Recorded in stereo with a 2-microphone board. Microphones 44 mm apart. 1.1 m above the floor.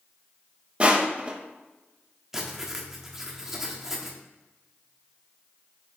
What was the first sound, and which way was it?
Crushing, 25° right (ahead or behind).